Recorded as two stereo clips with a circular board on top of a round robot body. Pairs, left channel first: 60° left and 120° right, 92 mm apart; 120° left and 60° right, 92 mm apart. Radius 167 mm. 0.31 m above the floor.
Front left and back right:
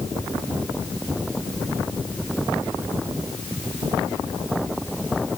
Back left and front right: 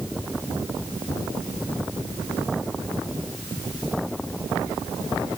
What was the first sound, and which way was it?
Only background noise.